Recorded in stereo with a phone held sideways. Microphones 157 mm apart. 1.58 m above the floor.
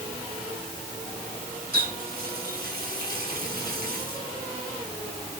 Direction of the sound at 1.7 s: 85° right.